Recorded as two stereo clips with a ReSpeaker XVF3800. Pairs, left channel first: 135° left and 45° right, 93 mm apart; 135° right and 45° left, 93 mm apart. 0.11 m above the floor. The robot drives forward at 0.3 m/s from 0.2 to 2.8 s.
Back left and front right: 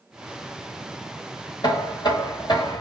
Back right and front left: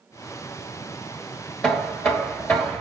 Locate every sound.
1.6 s knocking: 150° left, 1.3 m; by 2.8 s 160° left, 1.5 m